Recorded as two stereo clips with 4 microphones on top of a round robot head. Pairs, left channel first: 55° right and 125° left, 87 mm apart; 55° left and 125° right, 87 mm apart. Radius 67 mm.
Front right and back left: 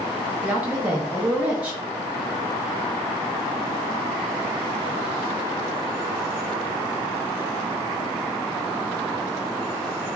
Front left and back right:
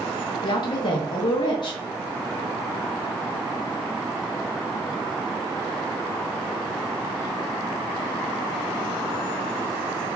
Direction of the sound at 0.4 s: 55° left.